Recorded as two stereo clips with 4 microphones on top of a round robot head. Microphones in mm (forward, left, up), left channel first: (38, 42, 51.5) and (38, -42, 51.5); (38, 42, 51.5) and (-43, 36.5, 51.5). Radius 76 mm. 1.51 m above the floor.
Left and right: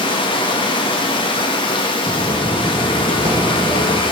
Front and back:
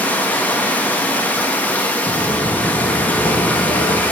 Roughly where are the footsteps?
Ahead.